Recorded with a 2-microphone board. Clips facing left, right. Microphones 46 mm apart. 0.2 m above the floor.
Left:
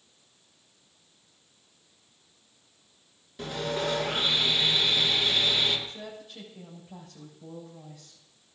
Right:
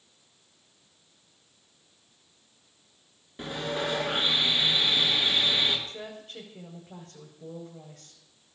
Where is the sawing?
25° right (ahead or behind), 2.5 m.